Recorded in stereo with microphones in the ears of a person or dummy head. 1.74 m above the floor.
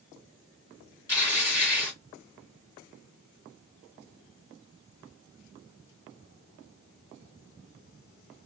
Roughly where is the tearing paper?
Centre.